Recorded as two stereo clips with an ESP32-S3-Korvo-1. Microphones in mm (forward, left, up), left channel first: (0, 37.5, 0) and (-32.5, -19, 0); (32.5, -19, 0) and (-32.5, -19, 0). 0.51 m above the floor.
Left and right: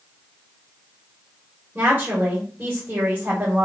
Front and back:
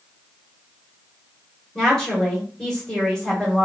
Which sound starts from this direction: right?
A woman speaking, at 1.8 s.